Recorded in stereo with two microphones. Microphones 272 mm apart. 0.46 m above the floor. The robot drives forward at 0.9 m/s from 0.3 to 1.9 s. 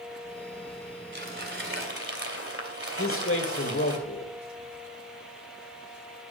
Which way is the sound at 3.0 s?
50° left (ahead or behind).